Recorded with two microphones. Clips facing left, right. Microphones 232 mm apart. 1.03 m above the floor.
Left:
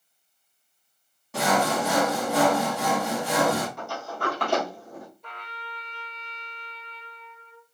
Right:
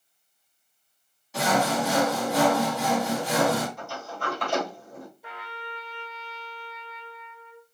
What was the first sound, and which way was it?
Sawing, 60° left (ahead or behind).